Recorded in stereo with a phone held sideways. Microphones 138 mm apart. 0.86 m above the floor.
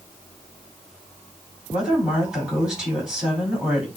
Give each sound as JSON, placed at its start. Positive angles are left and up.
{"t": 1.7, "sound": "a woman speaking", "side_deg": -5, "distance_m": 5.5}